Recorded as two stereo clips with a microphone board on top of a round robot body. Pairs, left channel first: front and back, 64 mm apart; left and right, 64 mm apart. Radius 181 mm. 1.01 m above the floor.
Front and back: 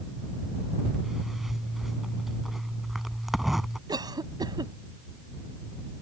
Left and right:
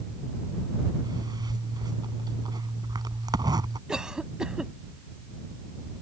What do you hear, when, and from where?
1.0 s a zipper: 95° right
3.9 s a cough: 170° right